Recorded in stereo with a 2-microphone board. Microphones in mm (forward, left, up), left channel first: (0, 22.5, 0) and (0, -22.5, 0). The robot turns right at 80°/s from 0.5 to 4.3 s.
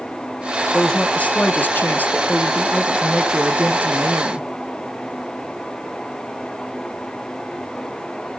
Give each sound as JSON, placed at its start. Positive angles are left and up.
{"t": 0.7, "sound": "a woman speaking", "azimuth_deg": 10, "distance_m": 1.8}